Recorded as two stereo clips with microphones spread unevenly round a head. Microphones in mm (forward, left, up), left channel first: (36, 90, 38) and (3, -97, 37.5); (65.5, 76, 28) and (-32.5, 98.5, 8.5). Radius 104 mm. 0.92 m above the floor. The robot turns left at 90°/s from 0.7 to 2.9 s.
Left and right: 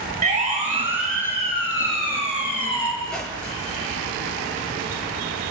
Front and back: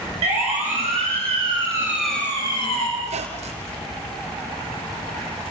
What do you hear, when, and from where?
0.2 s a siren: 155° right, 6 m; by 2.9 s straight ahead, 8 m
3.0 s a squeak: 165° left, 3 m